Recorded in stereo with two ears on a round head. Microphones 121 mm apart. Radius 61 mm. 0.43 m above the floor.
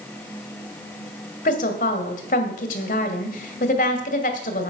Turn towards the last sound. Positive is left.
turn(degrees=65)  # may be behind; listen again after turning